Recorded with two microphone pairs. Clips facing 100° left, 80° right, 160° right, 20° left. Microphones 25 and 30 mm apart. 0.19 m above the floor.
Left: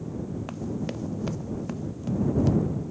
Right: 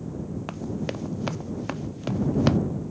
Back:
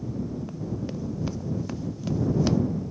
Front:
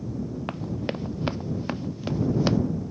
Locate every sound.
0.5 s running footsteps: 5° right; by 2.6 s 45° right